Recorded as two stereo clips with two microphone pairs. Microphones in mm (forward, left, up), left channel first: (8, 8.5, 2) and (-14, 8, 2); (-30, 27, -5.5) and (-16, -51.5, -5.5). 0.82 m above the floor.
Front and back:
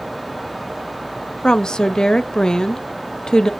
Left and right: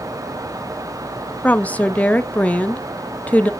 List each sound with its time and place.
1.4 s a woman speaking: 35° left, 0.6 m